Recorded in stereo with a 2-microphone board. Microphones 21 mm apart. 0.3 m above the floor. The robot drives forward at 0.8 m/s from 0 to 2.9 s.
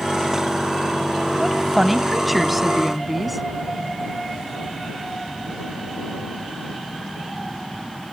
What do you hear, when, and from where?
1.4 s a woman speaking: 10° right (ahead or behind); by 3.4 s 5° right (ahead or behind)